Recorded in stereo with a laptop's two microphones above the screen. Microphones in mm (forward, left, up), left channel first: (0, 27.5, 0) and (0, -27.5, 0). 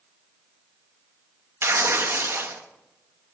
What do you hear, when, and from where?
1.6 s tearing paper: 45° right (ahead or behind), 0.8 m